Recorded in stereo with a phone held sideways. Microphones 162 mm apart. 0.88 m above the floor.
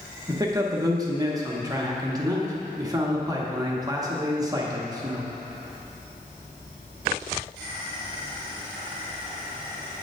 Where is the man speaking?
25° right (ahead or behind), 0.9 m.